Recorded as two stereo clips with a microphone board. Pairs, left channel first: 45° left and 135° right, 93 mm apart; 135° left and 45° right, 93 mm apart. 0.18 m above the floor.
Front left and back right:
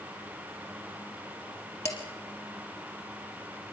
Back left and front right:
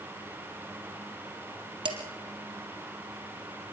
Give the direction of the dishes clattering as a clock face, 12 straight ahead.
12 o'clock.